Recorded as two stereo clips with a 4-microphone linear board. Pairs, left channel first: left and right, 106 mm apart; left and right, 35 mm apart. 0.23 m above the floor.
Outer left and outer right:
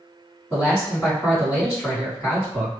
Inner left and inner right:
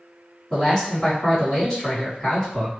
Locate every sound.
0.5 s a man speaking: 5° right (ahead or behind), 1.8 m